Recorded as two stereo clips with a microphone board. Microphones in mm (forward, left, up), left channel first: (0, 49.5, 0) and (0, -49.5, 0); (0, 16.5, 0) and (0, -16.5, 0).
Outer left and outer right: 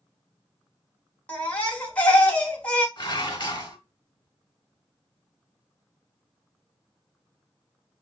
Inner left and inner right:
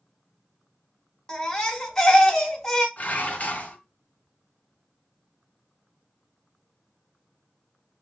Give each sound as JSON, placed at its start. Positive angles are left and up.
{"t": 1.3, "sound": "a baby crying", "side_deg": 10, "distance_m": 0.9}
{"t": 3.0, "sound": "dishes clattering", "side_deg": 50, "distance_m": 1.1}